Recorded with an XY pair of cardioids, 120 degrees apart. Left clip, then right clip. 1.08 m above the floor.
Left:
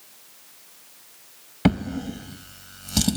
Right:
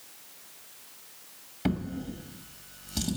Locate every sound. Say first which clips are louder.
1.6 s a drawer: left 8 dB; 65° left, 0.8 m